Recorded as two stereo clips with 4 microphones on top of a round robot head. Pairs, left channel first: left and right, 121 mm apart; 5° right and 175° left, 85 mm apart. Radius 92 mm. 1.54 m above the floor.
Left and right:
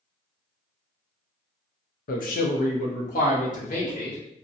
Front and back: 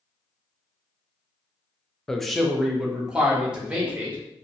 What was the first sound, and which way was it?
A man speaking, 80° left.